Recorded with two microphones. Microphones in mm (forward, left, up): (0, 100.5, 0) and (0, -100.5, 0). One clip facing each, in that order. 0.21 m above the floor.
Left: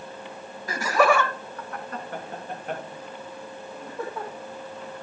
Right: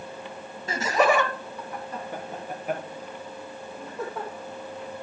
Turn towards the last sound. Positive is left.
turn(degrees=-5)  # may be behind; listen again after turning